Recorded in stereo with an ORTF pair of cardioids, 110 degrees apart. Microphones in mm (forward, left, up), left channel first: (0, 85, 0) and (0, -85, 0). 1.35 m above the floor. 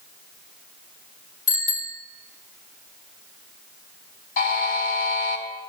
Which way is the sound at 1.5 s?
45° left.